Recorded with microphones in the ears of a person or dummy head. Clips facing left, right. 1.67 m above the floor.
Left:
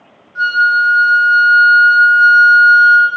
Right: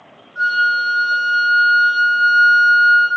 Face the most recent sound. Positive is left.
turn(degrees=75)  # may be behind; listen again after turning